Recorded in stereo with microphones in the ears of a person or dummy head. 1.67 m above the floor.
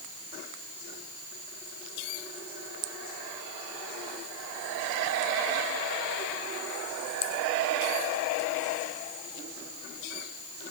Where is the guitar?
I don't hear a guitar.